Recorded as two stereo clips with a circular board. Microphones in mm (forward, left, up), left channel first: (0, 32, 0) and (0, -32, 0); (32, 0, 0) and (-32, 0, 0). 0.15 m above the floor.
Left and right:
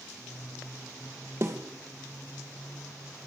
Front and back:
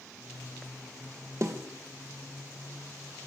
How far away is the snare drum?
About 3 m.